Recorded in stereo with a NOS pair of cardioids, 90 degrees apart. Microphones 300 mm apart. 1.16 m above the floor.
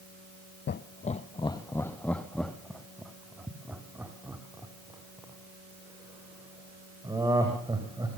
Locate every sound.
0.7 s laughter: 35° left, 0.6 m; by 8.1 s 10° right, 4.5 m